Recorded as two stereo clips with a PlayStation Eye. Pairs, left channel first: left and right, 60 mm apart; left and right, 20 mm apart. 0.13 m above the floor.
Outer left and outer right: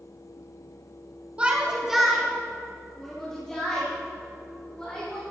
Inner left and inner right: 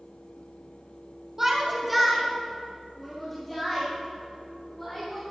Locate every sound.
1.4 s a shout: 20° right (ahead or behind), 1.2 m; by 5.2 s 15° left (ahead or behind), 5 m